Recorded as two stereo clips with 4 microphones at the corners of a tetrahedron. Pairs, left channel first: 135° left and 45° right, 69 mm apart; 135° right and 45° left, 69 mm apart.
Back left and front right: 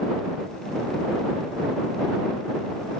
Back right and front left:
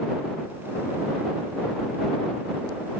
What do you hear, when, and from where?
Only background noise.